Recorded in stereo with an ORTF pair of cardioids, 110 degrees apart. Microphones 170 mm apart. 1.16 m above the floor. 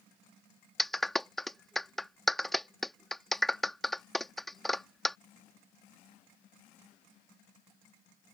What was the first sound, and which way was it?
A clap, straight ahead.